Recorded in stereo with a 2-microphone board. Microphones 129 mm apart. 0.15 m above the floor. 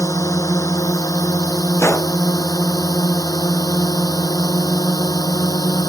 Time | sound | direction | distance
0.0 | a drone | 25° left (ahead or behind) | ?
1.8 | a gunshot | 20° left (ahead or behind) | ?